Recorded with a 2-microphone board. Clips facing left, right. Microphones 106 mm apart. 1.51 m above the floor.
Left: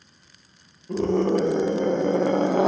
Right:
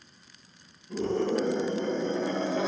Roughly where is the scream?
Left.